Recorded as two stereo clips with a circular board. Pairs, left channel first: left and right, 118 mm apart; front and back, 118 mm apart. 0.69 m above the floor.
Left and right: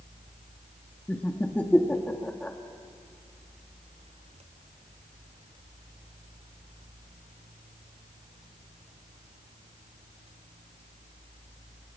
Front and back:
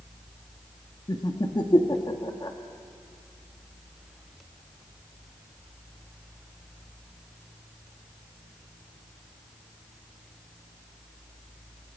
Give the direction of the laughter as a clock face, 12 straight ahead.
11 o'clock.